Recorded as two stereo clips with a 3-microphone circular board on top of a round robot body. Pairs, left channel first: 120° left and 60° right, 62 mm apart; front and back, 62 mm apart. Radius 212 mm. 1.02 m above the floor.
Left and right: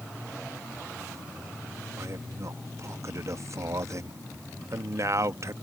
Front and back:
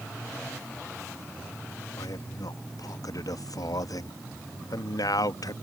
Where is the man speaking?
20° right.